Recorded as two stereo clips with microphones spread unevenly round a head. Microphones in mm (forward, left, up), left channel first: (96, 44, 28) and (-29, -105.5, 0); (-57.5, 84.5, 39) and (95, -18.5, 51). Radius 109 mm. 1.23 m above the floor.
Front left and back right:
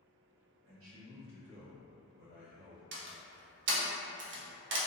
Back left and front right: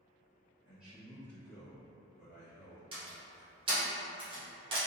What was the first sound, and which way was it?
A man speaking, 115° right.